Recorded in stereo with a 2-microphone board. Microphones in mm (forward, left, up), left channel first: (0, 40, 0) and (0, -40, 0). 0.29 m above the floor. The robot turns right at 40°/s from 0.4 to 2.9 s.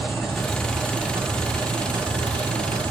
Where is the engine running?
175° left, 5 m; by 2.9 s 85° right, 5 m.